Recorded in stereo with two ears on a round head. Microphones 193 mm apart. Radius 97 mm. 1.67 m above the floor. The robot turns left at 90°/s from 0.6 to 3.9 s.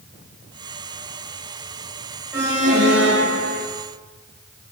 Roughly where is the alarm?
Ahead.